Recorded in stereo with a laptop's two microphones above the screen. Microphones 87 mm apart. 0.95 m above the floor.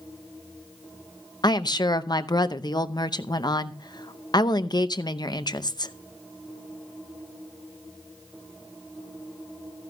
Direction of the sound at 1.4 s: 50° left (ahead or behind).